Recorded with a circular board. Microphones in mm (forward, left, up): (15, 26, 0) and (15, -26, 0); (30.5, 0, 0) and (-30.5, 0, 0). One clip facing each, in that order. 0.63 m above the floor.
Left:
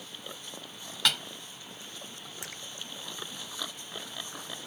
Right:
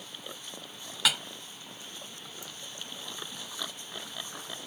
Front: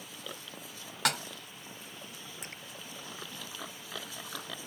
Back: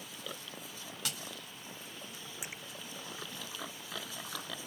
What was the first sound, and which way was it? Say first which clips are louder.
A snare drum: even, front 13 dB; 5° right.